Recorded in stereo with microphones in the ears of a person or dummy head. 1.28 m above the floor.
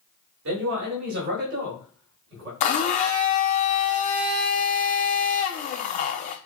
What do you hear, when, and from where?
0.5 s a man speaking: 65° right (ahead or behind), 1.6 m; by 2.5 s 60° right (ahead or behind), 3 m
2.6 s a blender: 35° left (ahead or behind), 0.5 m